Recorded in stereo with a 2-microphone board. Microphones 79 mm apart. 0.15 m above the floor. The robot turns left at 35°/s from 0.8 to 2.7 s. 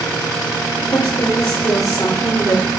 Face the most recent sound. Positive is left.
turn(degrees=20)